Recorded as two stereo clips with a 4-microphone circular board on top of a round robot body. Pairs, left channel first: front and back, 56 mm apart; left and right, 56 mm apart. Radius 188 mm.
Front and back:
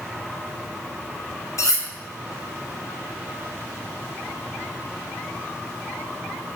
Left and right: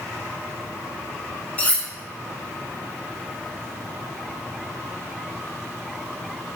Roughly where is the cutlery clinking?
Ahead.